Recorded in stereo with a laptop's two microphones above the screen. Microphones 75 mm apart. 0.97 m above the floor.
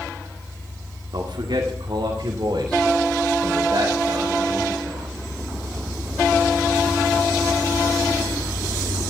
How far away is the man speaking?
About 2.0 m.